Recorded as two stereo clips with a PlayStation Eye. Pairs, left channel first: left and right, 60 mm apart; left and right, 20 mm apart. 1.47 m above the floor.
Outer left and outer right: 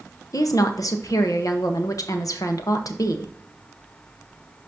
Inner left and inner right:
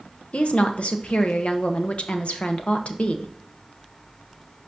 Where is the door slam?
No door slam in this recording.